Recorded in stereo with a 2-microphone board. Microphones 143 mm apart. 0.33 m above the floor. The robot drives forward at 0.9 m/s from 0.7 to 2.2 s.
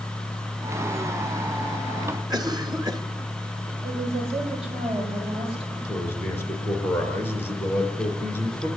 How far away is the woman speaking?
About 9 m.